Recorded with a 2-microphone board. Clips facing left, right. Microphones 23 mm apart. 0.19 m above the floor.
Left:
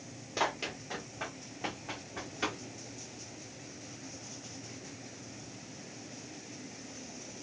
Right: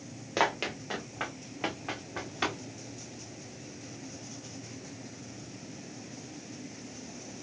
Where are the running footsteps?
45° right (ahead or behind), 1.0 m; by 2.6 s 70° right (ahead or behind), 2.5 m.